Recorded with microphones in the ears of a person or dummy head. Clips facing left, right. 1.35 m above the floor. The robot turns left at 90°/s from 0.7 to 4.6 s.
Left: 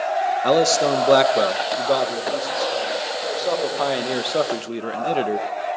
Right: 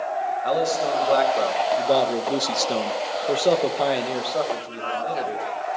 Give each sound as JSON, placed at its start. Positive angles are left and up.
{"t": 0.4, "sound": "a man speaking", "azimuth_deg": 105, "distance_m": 1.8}